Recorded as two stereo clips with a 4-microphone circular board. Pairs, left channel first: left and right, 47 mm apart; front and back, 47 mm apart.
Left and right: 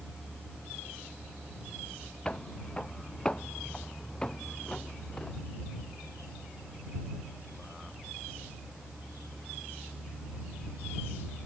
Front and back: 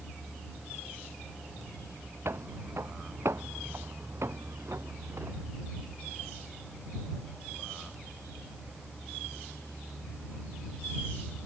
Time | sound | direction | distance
2.2 | footsteps | 160° left | ?